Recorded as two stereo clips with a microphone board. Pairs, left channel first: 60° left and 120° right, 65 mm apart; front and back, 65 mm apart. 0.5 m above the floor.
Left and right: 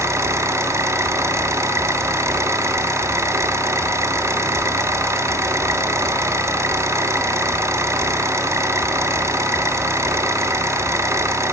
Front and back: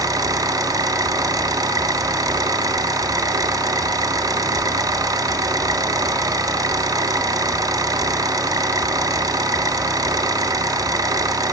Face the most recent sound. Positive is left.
turn(degrees=-165)